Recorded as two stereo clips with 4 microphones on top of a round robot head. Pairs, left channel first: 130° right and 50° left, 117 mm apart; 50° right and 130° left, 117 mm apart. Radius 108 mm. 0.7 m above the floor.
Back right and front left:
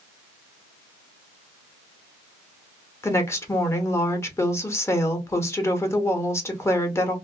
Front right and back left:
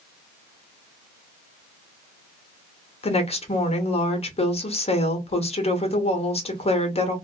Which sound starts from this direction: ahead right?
A woman speaking, at 3.0 s.